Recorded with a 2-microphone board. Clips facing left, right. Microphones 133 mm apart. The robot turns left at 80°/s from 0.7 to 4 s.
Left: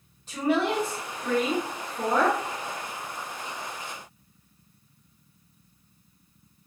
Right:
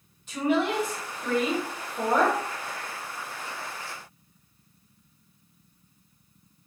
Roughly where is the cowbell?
I don't hear a cowbell.